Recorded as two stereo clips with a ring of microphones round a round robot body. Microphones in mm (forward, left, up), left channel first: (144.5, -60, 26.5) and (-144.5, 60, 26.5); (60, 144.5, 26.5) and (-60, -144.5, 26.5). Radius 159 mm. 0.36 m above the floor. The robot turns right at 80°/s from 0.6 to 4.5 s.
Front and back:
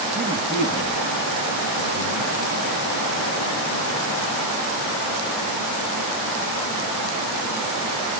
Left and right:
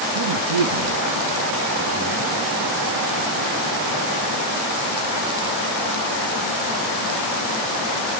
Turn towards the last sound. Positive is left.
turn(degrees=-160)